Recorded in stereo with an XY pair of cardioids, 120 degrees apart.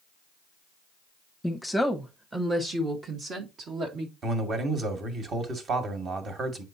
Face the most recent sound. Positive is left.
turn(degrees=-45)